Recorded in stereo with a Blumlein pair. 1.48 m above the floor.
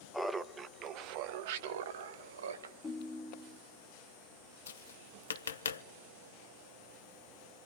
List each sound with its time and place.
0.1 s laughter: straight ahead, 0.6 m; by 2.7 s 65° right, 1.6 m
2.8 s a ringtone: 25° left, 1.1 m
4.7 s tapping: 70° left, 0.6 m